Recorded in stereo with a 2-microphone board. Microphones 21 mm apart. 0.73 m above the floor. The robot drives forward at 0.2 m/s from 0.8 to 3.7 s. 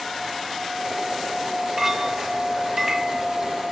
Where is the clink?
25° right (ahead or behind), 1.2 m; by 3.2 s 30° right (ahead or behind), 0.9 m.